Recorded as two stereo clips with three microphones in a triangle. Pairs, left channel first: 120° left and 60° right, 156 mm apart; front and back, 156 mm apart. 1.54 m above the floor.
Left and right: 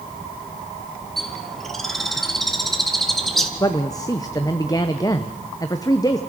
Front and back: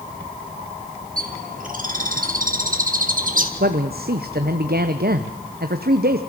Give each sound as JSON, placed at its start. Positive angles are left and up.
{"t": 1.2, "sound": "a bird", "azimuth_deg": -150, "distance_m": 2.0}
{"t": 3.6, "sound": "a man speaking", "azimuth_deg": -175, "distance_m": 1.0}